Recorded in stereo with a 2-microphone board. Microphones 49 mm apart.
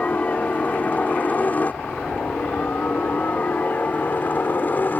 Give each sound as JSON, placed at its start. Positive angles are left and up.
{"t": 0.0, "sound": "a helicopter", "side_deg": 30}